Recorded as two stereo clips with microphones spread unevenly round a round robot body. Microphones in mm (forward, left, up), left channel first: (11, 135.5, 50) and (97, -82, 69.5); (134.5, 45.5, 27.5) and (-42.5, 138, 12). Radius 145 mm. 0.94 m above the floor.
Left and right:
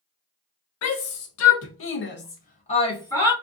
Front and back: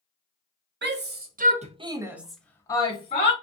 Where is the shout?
125° left, 0.9 m; by 3.3 s 30° left, 1.0 m.